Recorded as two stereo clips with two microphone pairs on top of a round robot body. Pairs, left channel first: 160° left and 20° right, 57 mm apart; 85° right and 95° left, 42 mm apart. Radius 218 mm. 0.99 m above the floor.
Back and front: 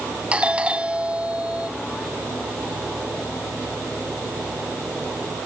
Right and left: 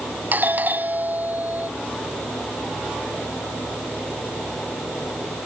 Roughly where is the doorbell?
Ahead left.